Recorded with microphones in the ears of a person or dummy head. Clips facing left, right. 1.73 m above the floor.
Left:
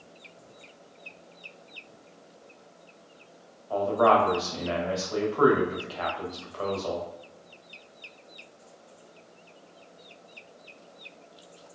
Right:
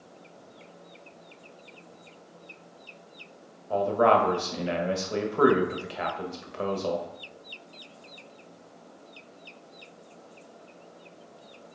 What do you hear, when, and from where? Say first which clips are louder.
3.7 s a man speaking: even; 30° right (ahead or behind), 0.7 m